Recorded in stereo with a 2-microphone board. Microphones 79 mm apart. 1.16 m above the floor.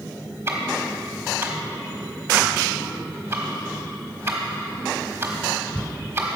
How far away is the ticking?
About 1.3 m.